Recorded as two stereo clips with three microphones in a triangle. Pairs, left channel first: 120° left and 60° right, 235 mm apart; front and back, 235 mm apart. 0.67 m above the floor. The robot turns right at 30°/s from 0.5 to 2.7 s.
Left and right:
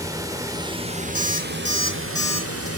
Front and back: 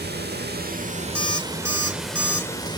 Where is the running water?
135° right, 1.0 m; by 2.8 s 70° right, 1.0 m.